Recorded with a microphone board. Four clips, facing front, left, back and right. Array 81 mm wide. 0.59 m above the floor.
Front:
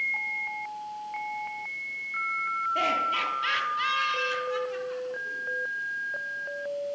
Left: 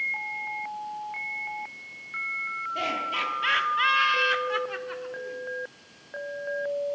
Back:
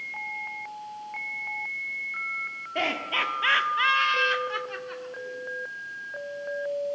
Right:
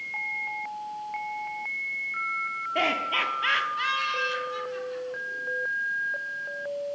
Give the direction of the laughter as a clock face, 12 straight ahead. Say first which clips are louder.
Right 3 dB, back 1 dB; 4 o'clock.